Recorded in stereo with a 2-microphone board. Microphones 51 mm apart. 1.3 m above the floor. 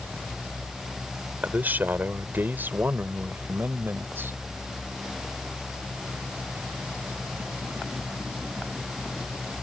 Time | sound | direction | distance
1.4 | a man speaking | 40° right (ahead or behind) | ?